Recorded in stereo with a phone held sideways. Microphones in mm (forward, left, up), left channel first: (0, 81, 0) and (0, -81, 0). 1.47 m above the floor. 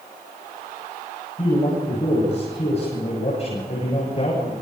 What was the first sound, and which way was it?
A man speaking, 40° left (ahead or behind).